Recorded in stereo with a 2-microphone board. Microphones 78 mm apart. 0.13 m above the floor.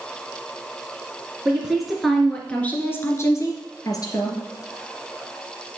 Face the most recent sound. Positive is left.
turn(degrees=60)  # may be behind; listen again after turning